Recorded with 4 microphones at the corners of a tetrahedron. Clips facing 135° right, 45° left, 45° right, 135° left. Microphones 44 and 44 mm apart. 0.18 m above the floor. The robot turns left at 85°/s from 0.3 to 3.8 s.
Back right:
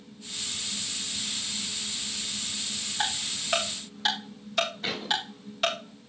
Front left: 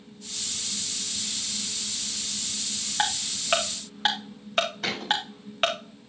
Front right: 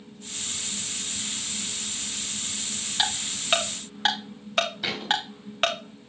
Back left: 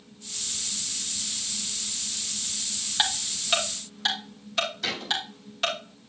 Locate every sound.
3.0 s ticking: 65° left, 3.5 m; by 5.8 s 5° right, 3.5 m
4.8 s a thud: 25° left, 5 m